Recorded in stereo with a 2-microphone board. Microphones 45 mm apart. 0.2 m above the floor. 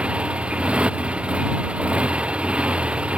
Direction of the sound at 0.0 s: 25° right (ahead or behind).